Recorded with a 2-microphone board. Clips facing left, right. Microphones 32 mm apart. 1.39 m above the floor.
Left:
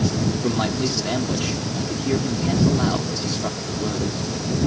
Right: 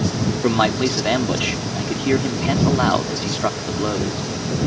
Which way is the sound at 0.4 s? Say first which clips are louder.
Right 9 dB; 45° right (ahead or behind).